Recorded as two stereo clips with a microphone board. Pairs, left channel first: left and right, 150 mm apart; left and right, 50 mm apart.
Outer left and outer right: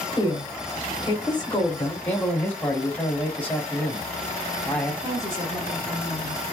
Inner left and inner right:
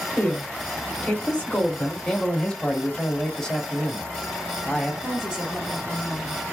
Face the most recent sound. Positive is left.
turn(degrees=-20)  # may be behind; listen again after turning